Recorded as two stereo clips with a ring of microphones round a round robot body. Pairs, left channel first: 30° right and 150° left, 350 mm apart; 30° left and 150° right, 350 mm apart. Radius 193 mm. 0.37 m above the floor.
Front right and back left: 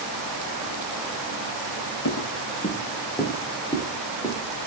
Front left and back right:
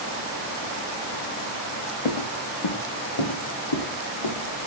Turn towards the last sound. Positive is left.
turn(degrees=60)